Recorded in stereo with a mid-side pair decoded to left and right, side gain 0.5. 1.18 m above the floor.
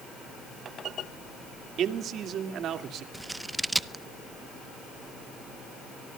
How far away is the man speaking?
About 2 m.